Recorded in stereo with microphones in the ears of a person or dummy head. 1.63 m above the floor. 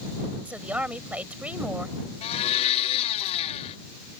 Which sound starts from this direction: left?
A blender, at 2.2 s.